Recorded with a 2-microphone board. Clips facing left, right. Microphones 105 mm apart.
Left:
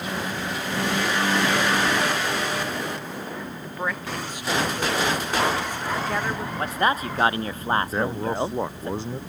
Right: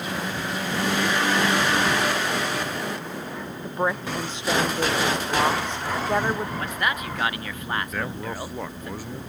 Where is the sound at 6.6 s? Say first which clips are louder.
Left 4 dB; 35° left (ahead or behind).